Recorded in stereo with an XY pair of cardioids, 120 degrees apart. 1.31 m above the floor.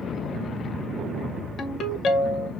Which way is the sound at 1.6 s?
50° left.